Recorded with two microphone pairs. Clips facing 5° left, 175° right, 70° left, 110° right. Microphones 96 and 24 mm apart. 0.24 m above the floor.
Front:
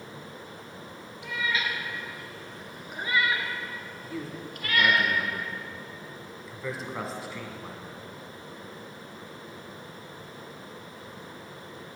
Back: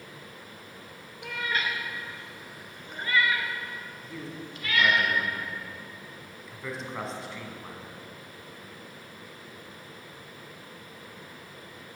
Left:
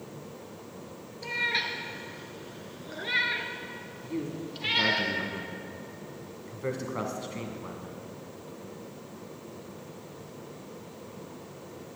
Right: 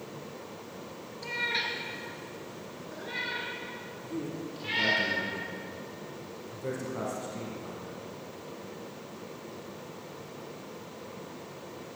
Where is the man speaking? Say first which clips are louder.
Front 4 dB, left 2 dB; 90° left, 2 m.